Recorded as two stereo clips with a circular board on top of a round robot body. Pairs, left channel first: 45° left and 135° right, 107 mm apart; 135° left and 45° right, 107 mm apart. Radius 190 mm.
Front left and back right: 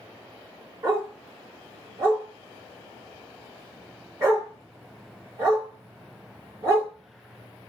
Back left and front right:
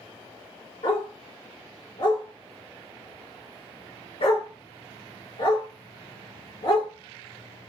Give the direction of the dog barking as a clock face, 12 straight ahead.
6 o'clock.